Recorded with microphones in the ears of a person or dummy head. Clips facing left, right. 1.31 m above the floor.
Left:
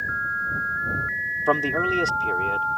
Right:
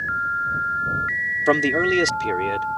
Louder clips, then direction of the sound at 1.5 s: Right 4 dB; 30° right (ahead or behind).